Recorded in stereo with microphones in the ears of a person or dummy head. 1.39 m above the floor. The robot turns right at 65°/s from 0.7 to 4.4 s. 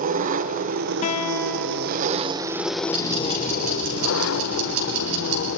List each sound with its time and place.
0.0 s an engine running: 135° right, 0.8 m; by 5.6 s 110° left, 0.8 m
1.0 s a guitar: 135° left, 1.2 m; by 2.0 s 160° right, 1.2 m
2.9 s ticking: straight behind, 5.5 m; by 5.5 s 80° right, 5.5 m